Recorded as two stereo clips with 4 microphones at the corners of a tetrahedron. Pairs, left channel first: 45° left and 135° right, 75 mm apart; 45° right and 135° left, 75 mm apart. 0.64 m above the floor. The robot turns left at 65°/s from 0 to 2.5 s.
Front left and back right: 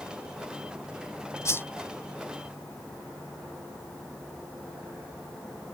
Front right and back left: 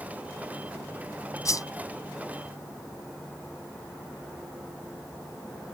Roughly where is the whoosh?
Ahead.